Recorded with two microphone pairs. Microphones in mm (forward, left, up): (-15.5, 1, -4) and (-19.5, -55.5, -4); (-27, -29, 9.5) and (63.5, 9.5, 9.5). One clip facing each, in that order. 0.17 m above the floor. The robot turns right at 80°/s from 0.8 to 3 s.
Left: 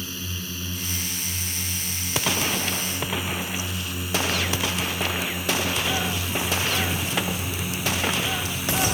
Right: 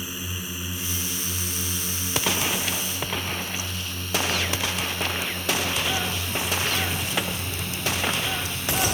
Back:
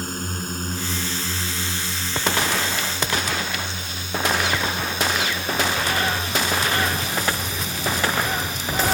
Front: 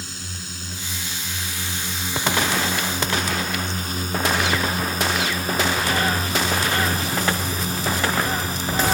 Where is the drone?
165° right; by 8.9 s 10° left.